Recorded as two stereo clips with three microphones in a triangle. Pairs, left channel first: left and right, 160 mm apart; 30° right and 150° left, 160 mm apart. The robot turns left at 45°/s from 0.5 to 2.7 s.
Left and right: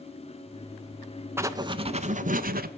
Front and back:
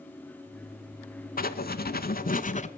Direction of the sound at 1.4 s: 15° right.